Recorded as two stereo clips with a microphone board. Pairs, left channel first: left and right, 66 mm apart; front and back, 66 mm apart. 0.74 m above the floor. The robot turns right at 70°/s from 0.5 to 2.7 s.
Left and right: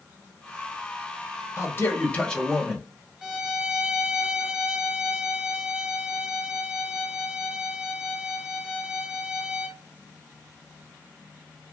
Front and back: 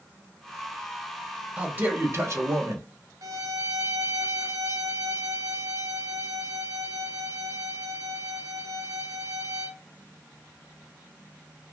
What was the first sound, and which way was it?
A man speaking, 115° left.